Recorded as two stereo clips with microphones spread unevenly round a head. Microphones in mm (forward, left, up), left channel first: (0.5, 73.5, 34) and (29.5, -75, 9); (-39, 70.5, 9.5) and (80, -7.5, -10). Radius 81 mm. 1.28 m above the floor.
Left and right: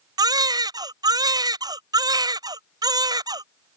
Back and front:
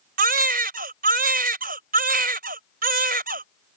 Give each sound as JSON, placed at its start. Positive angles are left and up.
{"t": 0.2, "sound": "a baby crying", "azimuth_deg": -10}